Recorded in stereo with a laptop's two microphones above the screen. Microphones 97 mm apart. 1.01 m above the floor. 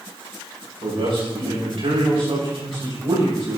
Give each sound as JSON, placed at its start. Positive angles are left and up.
{"t": 0.8, "sound": "a man speaking", "side_deg": -75, "distance_m": 5.0}